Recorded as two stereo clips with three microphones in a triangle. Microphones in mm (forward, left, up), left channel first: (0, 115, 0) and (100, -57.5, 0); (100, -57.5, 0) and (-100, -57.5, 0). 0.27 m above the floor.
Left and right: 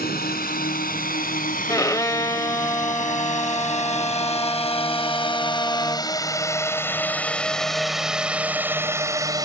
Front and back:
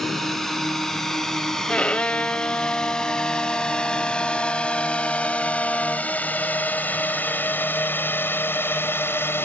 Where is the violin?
75° left.